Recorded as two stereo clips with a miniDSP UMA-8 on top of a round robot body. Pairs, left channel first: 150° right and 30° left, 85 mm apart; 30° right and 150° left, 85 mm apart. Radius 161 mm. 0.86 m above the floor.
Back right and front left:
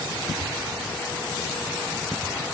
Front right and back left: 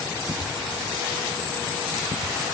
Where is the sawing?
No sawing in this recording.